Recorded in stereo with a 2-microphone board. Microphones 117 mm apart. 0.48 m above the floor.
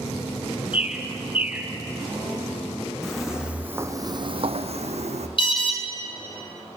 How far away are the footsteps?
About 1.8 m.